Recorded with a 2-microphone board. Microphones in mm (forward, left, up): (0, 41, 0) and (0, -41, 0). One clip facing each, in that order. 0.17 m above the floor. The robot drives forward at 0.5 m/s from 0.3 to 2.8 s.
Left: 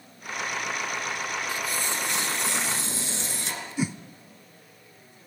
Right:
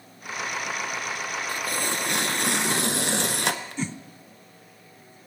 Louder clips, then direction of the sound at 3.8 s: Left 3 dB; 10° left (ahead or behind).